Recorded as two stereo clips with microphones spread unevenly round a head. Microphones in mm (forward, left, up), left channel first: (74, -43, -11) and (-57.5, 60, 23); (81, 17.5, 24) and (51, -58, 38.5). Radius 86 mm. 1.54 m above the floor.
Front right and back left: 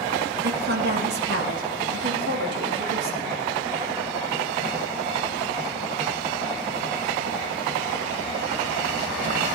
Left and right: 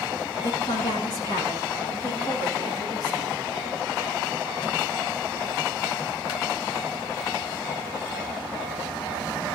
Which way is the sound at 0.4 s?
115° left.